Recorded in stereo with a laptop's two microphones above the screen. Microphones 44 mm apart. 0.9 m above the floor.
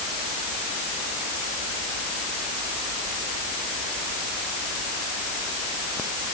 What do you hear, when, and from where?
Only background noise.